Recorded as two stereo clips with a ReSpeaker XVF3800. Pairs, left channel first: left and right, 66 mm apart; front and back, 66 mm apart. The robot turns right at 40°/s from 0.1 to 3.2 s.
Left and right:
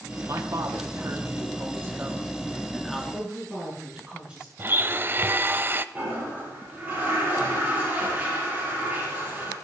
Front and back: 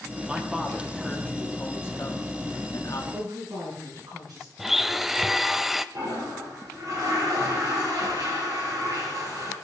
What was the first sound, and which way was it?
A man speaking, 105° right.